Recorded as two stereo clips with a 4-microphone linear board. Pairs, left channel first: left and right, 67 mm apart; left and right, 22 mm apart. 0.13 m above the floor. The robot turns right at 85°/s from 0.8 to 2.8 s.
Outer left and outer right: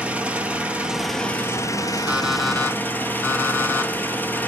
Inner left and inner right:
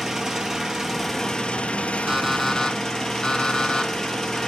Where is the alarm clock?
25° right (ahead or behind), 2.5 m; by 4.4 s 35° left (ahead or behind), 2.5 m.